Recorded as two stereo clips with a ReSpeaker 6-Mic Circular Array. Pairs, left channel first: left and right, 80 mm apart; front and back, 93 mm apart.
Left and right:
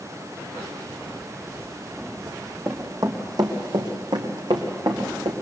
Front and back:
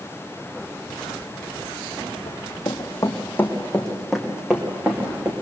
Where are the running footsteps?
30° right, 3 m; by 5.3 s 115° right, 4 m.